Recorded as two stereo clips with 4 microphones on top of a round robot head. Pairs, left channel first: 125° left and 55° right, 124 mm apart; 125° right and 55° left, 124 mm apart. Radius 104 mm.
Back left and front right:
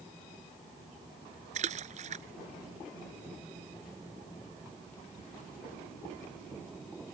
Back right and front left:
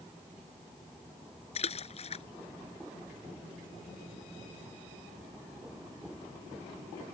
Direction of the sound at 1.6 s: 85° right.